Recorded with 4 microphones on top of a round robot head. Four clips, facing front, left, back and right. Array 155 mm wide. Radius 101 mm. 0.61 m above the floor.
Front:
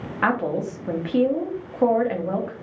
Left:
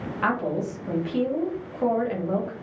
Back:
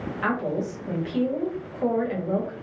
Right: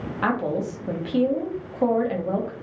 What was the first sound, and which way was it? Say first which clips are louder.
A woman speaking: right 1 dB, front 4 dB; 25° right.